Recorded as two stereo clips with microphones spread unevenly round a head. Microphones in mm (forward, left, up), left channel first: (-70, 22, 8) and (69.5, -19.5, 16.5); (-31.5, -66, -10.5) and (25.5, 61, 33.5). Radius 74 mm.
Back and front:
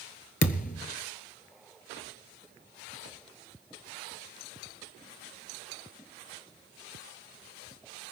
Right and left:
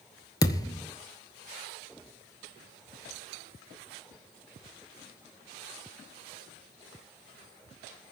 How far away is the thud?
About 1.2 m.